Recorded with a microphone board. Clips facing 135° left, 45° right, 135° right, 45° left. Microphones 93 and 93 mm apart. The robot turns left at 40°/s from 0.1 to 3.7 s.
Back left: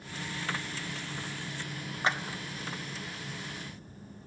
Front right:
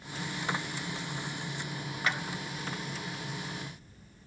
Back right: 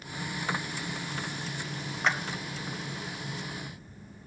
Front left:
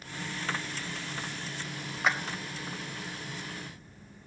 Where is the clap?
125° left, 0.8 m; by 2.2 s 120° left, 0.8 m.